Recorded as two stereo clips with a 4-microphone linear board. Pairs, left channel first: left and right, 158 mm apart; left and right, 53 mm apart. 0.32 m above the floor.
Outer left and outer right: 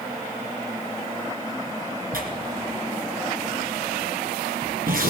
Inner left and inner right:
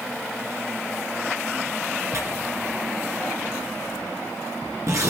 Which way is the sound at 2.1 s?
65° right (ahead or behind).